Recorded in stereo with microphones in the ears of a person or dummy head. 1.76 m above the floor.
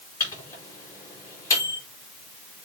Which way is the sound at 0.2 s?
20° left (ahead or behind).